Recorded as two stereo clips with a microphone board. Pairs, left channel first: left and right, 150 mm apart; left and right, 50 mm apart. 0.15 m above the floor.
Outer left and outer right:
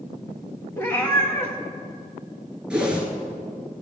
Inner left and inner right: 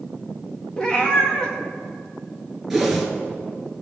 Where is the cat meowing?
15° left (ahead or behind), 2.5 m.